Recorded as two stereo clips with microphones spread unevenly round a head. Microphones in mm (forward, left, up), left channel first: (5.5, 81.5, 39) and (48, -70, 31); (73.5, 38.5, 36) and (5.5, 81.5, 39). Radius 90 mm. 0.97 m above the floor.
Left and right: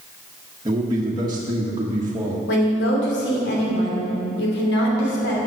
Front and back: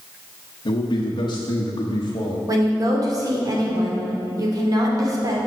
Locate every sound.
0.7 s a man speaking: 10° right, 1.2 m
2.5 s a woman speaking: 105° left, 3 m